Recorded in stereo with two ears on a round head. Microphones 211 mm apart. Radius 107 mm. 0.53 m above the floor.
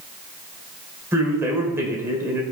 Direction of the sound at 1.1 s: 10° right (ahead or behind).